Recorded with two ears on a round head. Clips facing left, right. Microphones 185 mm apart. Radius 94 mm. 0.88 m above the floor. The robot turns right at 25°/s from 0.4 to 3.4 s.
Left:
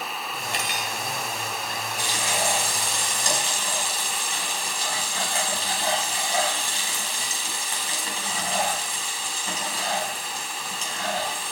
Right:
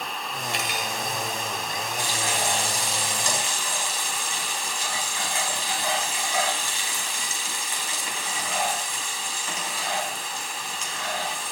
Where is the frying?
110° left, 5 m; by 11.5 s 150° left, 5 m.